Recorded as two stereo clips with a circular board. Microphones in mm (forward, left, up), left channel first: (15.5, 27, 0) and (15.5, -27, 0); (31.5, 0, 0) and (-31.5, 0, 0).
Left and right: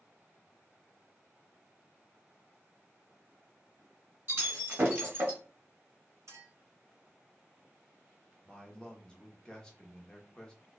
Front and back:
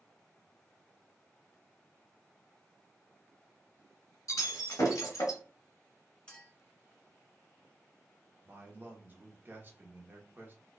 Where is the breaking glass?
35° right, 1.9 m.